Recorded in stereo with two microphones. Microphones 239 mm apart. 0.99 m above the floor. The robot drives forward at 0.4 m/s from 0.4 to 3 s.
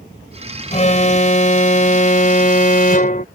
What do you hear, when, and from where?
0.7 s an alarm: 30° left (ahead or behind); by 3.2 s 35° left (ahead or behind)